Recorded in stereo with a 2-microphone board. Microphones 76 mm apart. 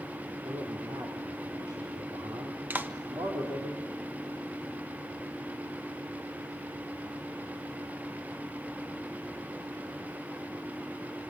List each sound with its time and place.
0.4 s a man speaking: 85° right, 4.5 m
2.7 s a clap: 25° right (ahead or behind), 1.3 m